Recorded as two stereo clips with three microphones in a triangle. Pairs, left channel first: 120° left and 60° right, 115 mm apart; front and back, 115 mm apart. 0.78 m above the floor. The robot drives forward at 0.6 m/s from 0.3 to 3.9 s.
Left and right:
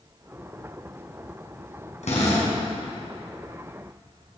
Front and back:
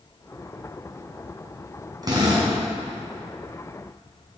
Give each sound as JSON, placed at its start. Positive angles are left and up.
{"t": 2.0, "sound": "a drill", "azimuth_deg": 125, "distance_m": 3.5}